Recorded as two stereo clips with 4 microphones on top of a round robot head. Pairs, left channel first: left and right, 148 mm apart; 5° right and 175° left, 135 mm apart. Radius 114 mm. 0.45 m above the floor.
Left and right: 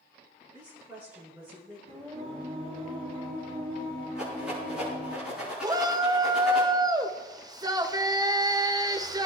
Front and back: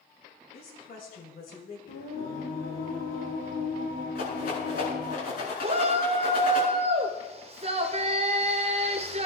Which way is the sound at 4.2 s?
5° right.